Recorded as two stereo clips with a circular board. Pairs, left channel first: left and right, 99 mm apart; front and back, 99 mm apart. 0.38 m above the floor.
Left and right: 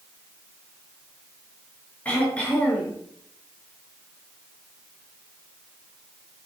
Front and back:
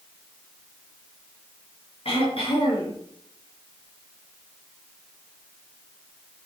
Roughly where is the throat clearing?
Ahead.